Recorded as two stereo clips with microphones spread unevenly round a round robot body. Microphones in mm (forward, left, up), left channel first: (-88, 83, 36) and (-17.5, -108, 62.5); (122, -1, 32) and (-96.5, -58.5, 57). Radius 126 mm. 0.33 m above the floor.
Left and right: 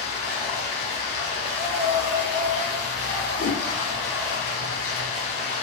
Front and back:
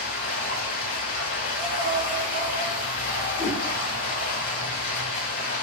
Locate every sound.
0.0 s running water: 55° left, 1.6 m
1.4 s breathing: 130° right, 1.4 m
3.4 s a whoosh: 70° left, 0.8 m